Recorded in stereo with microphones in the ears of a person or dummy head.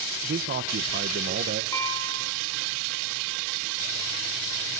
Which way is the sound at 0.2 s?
50° right (ahead or behind).